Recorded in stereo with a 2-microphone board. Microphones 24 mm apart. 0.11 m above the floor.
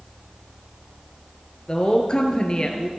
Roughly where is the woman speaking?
Left.